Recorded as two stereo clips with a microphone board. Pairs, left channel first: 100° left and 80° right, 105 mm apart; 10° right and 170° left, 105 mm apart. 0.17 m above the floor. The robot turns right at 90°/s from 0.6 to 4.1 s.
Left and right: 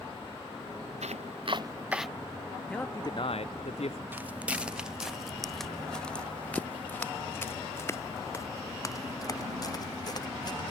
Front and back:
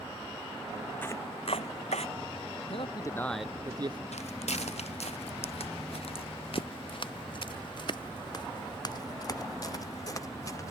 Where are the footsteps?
5° right; by 10.7 s 50° left.